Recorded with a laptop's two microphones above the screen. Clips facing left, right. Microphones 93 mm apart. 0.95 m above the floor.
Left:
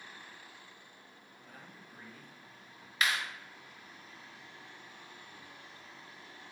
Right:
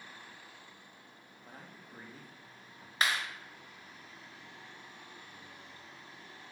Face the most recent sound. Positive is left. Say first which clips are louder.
# even
turn(degrees=-30)  # may be behind; listen again after turning